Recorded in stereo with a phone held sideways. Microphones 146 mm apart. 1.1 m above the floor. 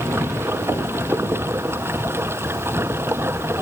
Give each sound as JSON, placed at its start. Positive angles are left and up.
{"t": 0.0, "sound": "running water", "side_deg": -15}